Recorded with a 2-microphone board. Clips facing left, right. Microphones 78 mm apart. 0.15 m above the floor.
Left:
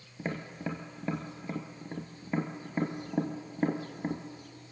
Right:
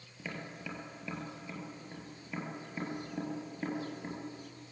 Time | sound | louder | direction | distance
0.2 | tapping | left 7 dB | 40° left (ahead or behind) | 1.8 m